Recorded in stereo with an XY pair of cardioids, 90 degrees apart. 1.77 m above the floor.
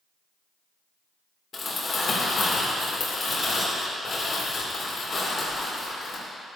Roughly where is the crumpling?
Ahead left.